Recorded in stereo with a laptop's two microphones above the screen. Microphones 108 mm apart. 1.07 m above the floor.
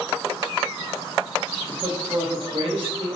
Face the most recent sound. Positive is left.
turn(degrees=-50)  # may be behind; listen again after turning